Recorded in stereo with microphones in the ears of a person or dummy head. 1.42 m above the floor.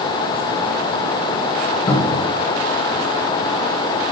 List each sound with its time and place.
1.9 s a cupboard door: 20° left (ahead or behind), 1.1 m